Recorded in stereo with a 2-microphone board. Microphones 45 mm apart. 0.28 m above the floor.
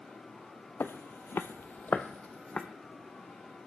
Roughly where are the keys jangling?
I don't hear keys jangling.